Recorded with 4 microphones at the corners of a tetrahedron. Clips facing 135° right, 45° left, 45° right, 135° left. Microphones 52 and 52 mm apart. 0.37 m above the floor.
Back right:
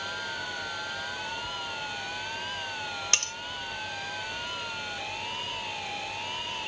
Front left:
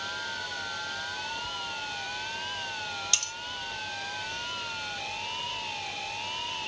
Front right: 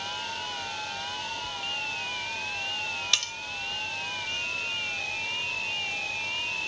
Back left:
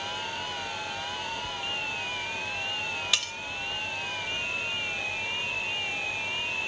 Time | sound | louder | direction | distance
3.1 | cutlery clinking | back right 3 dB, even | 145° right | 0.7 m